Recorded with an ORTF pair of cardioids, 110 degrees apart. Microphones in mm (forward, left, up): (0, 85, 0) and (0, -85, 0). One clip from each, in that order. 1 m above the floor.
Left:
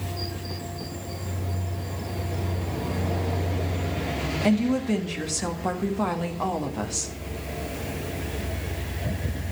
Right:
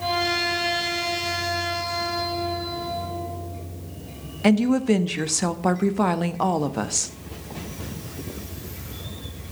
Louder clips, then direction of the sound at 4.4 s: Right 6 dB; 30° right.